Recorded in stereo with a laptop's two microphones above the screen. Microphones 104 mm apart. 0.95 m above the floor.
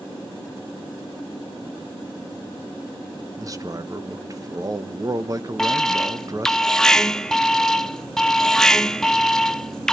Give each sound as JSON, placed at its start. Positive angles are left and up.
{"t": 3.4, "sound": "a man speaking", "side_deg": -35, "distance_m": 0.8}
{"t": 5.6, "sound": "an alarm", "side_deg": 5, "distance_m": 0.7}